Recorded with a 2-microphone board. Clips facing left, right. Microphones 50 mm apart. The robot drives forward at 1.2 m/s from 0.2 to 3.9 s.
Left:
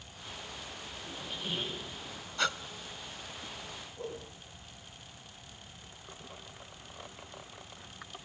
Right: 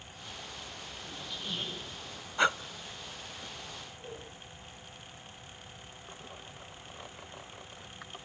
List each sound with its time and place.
1.1 s a squeak: 40° left (ahead or behind), 7.5 m; by 1.9 s 35° left (ahead or behind), 8 m
2.4 s breathing: 20° right (ahead or behind), 0.5 m
4.0 s a whoosh: 70° left (ahead or behind), 7.5 m